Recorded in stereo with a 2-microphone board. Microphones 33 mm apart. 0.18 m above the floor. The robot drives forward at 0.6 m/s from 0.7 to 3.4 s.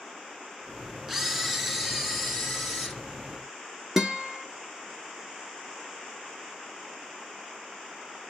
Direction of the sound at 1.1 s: 10° right (ahead or behind).